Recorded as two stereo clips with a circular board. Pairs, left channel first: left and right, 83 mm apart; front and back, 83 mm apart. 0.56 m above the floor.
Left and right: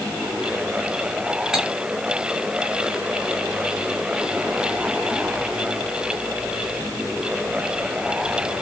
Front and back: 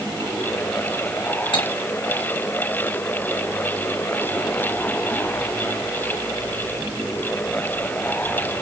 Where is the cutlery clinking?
5° right, 2 m.